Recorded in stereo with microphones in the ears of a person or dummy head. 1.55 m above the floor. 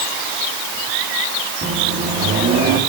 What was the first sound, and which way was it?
A microwave, 40° right (ahead or behind).